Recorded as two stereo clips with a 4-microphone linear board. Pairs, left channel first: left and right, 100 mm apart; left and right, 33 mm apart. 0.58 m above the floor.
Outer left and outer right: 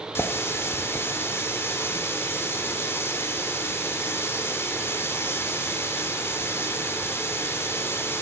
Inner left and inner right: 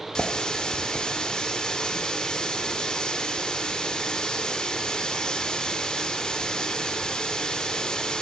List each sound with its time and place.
0.1 s a running tap: 25° left (ahead or behind), 1.0 m